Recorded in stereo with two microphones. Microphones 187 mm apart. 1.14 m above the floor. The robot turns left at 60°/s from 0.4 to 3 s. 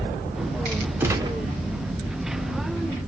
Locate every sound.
1.0 s a gunshot: 10° right (ahead or behind), 0.7 m; by 1.4 s 25° right (ahead or behind), 0.7 m